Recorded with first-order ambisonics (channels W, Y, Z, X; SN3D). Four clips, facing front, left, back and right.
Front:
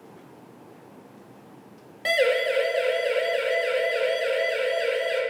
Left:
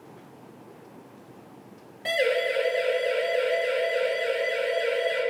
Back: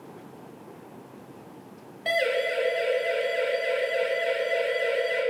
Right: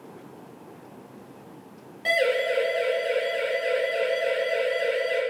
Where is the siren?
15° right, 6.5 m; by 5.2 s 10° right, 11 m.